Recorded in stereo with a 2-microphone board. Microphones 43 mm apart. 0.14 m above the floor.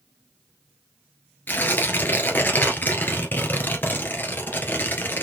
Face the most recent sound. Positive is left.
turn(degrees=50)  # may be behind; listen again after turning